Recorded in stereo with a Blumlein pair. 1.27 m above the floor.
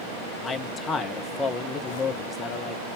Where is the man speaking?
20° left, 1.1 m.